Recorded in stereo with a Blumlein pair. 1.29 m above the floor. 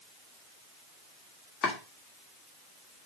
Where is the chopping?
25° left, 2 m.